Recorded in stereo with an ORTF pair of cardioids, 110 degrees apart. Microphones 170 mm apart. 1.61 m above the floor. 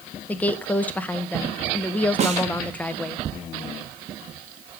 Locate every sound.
0.3 s a woman speaking: 10° left, 1.7 m
2.2 s a snare drum: 45° right, 2.5 m